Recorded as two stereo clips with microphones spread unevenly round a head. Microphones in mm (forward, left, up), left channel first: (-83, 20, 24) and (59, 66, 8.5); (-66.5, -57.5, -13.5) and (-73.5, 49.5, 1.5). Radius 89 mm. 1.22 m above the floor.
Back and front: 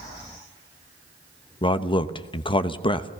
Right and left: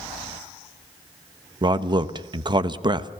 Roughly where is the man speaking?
Behind left.